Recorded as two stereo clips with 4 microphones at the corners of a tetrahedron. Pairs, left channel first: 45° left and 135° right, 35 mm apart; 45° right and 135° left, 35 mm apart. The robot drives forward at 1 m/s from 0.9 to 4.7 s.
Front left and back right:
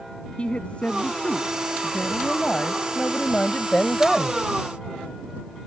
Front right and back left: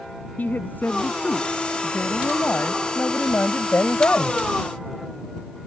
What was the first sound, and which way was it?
A woman speaking, 10° right.